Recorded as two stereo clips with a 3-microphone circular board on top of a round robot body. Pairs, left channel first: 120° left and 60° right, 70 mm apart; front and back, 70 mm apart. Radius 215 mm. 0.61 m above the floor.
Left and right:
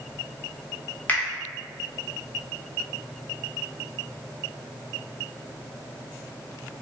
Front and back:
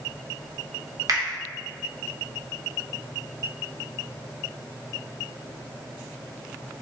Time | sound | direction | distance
1.1 | a finger snap | straight behind | 1.2 m